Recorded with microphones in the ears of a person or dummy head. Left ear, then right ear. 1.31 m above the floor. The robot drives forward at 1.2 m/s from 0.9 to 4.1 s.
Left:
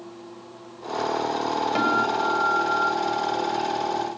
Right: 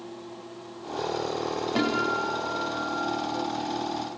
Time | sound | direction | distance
1.8 | a guitar | 65° left (ahead or behind) | 5.5 m